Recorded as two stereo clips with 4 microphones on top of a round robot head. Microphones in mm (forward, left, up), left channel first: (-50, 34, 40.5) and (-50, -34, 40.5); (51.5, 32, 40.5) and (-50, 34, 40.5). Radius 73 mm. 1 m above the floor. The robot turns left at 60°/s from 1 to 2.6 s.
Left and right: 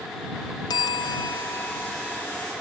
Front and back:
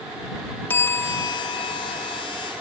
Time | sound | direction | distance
0.7 | a bell | 65° left | ?